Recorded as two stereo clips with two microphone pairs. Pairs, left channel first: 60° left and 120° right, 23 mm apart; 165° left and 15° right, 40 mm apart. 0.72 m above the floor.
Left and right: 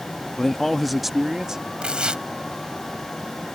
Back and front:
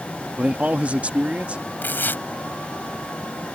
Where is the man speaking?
15° left; by 1.6 s 65° right.